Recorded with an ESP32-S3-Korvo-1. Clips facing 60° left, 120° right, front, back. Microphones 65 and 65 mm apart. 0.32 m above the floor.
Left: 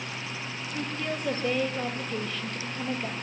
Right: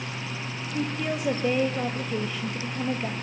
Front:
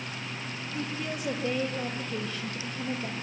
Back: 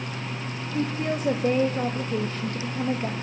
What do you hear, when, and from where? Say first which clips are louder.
0.7 s a woman speaking: right 4 dB, back 8 dB; 165° left, 1.3 m